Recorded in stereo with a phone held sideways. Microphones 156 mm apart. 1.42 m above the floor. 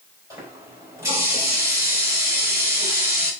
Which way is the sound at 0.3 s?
20° right (ahead or behind).